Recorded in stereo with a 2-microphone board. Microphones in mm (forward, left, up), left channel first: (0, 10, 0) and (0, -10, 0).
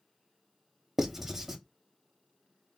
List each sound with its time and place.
1.0 s writing: 15° right (ahead or behind), 0.6 m